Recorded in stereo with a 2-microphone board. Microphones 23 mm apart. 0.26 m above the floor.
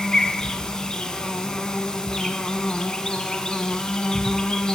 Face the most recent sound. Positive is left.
turn(degrees=30)  # may be behind; listen again after turning